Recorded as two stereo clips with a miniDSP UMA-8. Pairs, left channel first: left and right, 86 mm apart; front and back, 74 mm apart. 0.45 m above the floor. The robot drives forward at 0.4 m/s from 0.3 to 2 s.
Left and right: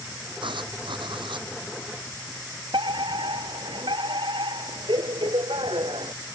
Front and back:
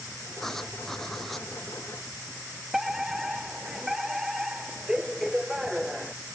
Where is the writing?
85° right.